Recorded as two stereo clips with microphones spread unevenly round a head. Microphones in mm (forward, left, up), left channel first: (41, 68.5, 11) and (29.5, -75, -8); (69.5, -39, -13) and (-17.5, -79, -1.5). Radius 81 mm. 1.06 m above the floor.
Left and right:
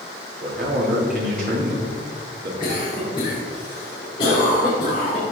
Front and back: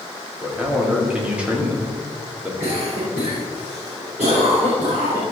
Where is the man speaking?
75° right, 3 m.